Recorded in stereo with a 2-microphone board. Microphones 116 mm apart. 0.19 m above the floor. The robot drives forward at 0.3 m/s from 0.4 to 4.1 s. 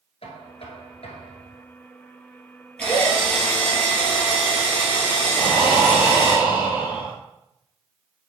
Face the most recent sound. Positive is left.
turn(degrees=-20)  # may be behind; listen again after turning